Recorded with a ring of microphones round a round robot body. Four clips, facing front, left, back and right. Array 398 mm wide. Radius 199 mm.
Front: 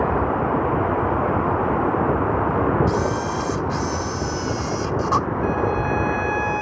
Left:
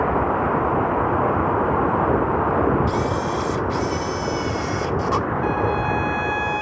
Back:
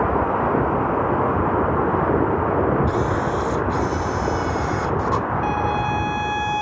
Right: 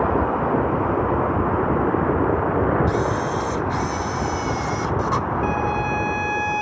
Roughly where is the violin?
Behind right.